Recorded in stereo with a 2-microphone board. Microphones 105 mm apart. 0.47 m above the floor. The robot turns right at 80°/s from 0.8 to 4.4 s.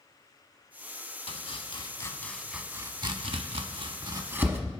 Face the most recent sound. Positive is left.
turn(degrees=-20)  # may be behind; listen again after turning